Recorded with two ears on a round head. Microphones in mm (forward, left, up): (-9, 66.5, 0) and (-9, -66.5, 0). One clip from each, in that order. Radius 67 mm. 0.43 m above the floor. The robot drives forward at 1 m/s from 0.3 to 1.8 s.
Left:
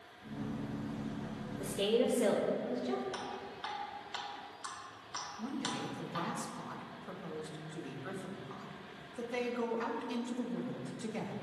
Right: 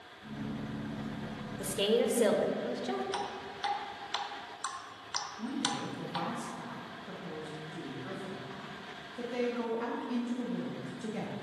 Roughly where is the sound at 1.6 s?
Right.